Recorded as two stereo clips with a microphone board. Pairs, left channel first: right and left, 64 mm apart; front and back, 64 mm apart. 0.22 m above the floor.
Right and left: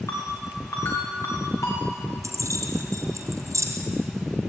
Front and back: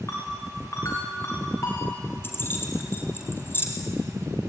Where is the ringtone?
45° right, 8.5 m.